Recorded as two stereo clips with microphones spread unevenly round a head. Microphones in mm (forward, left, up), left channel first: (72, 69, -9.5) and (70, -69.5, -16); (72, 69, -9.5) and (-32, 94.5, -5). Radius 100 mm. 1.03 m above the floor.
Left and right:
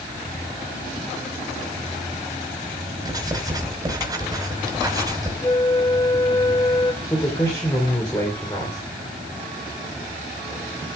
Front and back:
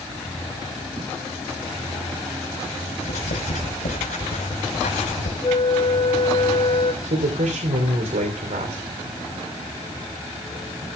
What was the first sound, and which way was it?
Writing, 25° right.